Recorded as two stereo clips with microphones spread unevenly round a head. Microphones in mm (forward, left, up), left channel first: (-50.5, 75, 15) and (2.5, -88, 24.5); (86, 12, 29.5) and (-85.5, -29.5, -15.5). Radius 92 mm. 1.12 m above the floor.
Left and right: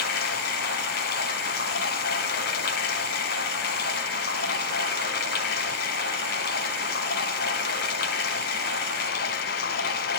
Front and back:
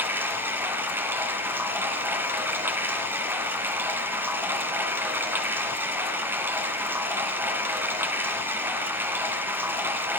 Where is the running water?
105° left, 1.4 m.